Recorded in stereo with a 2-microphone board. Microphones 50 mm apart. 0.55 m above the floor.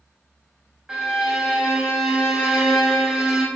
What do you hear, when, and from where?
0.9 s a violin: 15° right (ahead or behind), 0.7 m